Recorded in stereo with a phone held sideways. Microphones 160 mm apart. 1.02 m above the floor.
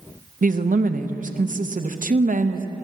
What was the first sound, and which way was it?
A woman speaking, 55° right (ahead or behind).